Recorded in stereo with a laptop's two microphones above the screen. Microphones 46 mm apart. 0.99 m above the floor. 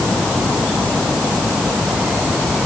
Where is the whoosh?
I don't hear a whoosh.